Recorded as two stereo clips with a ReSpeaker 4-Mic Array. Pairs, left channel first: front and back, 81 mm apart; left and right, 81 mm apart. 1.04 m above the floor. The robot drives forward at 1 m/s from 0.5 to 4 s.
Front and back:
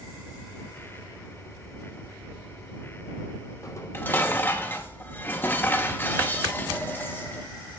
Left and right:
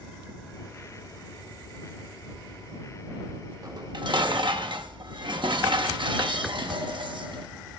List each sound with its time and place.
3.6 s dishes clattering: 50° right, 1.1 m; by 7.5 s 65° right, 0.9 m